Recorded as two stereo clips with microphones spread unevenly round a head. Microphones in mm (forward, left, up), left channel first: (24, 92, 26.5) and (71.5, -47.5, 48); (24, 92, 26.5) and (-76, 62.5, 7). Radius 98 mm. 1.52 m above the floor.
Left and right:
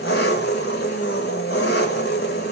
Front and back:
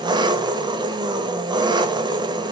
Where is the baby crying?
I don't hear a baby crying.